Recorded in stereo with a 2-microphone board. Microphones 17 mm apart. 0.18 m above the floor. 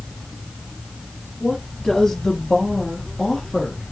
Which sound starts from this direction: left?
A woman speaking, at 1.4 s.